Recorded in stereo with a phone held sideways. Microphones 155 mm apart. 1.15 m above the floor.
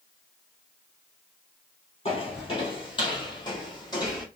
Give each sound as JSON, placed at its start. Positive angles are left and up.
{"t": 2.0, "sound": "footsteps", "side_deg": 40, "distance_m": 1.6}